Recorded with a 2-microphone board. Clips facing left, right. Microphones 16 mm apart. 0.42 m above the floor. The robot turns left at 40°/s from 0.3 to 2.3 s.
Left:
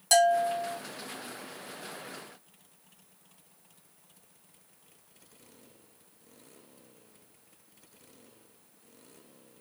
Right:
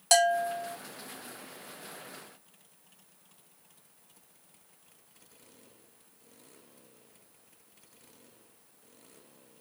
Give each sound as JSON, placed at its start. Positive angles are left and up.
{"t": 0.1, "sound": "a bell", "side_deg": -20, "distance_m": 0.9}